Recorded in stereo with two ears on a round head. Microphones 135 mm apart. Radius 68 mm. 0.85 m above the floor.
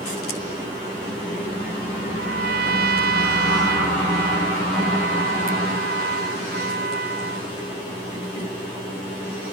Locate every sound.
2.1 s a trumpet: 75° right (ahead or behind)